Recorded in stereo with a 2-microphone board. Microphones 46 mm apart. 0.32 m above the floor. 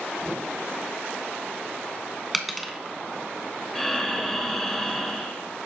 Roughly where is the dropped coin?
Centre.